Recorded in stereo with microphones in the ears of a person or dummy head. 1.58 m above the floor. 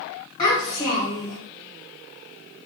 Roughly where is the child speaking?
Centre.